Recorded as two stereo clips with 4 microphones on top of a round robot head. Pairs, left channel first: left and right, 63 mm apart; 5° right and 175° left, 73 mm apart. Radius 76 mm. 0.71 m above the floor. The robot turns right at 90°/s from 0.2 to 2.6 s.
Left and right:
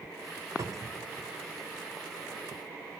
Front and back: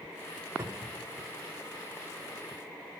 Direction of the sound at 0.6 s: 125° right.